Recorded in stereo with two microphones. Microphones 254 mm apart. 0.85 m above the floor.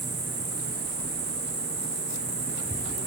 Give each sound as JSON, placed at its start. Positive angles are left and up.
{"t": 0.0, "sound": "an insect", "side_deg": -70, "distance_m": 9.0}